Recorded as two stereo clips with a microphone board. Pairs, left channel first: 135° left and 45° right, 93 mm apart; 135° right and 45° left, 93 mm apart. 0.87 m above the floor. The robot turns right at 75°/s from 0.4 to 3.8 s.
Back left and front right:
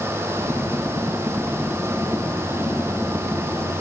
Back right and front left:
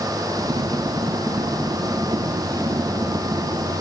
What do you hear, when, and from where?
Only background noise.